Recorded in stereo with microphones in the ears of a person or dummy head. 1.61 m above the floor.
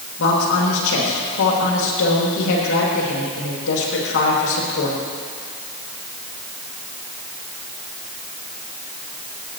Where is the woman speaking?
70° left (ahead or behind), 3 m.